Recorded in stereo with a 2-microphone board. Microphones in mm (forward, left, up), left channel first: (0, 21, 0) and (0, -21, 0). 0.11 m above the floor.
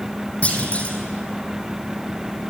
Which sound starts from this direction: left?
A clunk, at 0.4 s.